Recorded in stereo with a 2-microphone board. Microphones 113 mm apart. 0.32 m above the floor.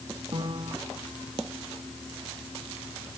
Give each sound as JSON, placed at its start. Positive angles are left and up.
{"t": 0.3, "sound": "a piano", "side_deg": -45}